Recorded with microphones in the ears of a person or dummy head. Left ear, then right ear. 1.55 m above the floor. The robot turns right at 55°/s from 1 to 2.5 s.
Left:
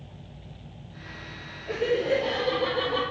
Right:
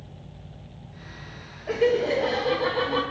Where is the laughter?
95° right, 0.8 m; by 3.0 s 50° right, 0.8 m.